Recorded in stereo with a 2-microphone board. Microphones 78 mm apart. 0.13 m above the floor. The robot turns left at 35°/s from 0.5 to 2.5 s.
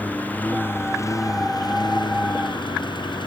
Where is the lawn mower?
160° left; by 3.3 s 90° left.